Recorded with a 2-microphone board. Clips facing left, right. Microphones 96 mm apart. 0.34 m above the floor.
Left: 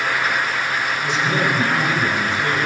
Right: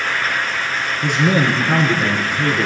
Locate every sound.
1.0 s a man speaking: 80° right, 8.5 m